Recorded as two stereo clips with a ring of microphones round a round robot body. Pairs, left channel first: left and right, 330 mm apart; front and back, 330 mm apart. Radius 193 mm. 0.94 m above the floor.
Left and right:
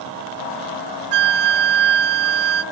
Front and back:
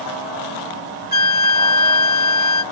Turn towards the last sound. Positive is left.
turn(degrees=-65)